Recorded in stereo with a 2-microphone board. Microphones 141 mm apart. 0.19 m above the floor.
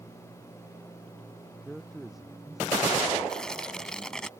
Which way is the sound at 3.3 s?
5° left (ahead or behind).